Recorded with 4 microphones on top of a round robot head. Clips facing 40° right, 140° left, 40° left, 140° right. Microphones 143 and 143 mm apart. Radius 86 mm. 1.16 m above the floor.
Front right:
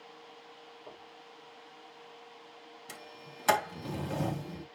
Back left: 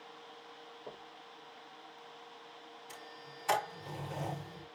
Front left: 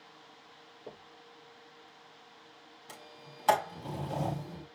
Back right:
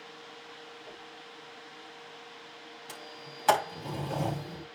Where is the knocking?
70° left, 3 m.